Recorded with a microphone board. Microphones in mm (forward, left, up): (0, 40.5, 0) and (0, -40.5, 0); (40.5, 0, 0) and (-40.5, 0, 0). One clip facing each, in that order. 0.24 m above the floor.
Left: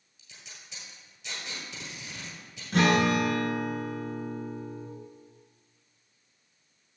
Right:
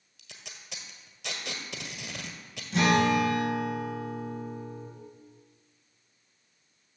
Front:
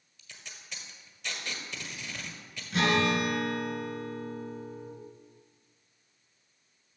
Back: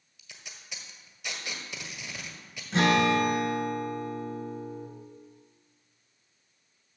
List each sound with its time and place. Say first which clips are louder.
0.2 s tape being pulled: right 2 dB, even; 95° right, 1.6 m
2.7 s a guitar: even, back 3 dB; 120° left, 2.5 m